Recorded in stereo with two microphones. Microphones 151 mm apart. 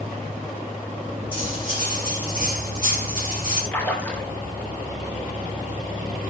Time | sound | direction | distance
1.3 | cutlery clinking | 35° left (ahead or behind) | 4.5 m
3.7 | a splash | 10° left (ahead or behind) | 2 m